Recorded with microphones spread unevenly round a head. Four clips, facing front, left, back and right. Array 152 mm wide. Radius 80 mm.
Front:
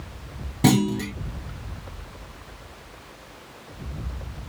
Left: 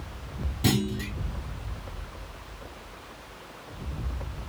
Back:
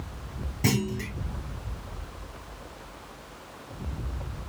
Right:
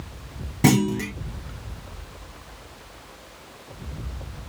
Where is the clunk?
50° right, 0.7 m.